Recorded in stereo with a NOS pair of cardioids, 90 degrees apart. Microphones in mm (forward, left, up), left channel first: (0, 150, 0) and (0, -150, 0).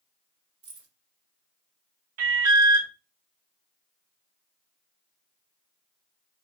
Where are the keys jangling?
60° right, 1.5 m.